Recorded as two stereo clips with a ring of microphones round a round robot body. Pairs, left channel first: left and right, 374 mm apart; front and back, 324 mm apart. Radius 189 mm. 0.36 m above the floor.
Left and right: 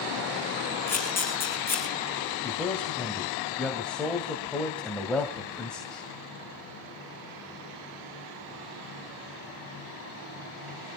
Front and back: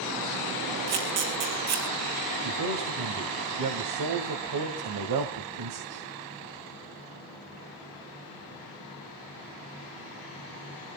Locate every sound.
0.9 s a camera shutter: 175° left, 5 m
2.4 s a man speaking: straight behind, 2 m